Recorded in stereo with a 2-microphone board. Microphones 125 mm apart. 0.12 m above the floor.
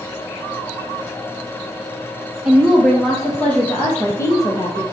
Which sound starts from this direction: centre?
A woman speaking, at 2.5 s.